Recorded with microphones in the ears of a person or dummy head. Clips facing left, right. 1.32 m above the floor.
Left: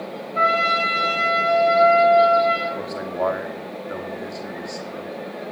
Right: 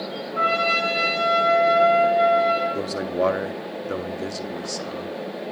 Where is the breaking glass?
No breaking glass in this recording.